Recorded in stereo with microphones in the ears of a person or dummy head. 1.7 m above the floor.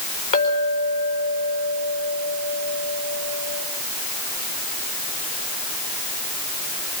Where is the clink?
35° left (ahead or behind), 4.5 m.